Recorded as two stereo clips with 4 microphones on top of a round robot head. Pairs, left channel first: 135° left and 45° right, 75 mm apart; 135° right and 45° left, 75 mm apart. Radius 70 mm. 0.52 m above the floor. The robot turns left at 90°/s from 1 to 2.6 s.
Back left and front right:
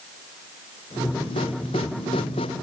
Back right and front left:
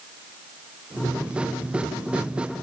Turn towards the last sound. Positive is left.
No sound to turn to.